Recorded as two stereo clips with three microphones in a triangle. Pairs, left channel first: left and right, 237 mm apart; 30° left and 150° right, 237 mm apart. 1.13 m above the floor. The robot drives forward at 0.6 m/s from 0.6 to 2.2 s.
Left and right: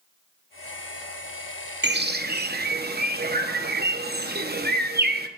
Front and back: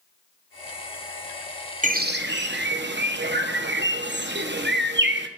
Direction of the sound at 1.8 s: 105° right.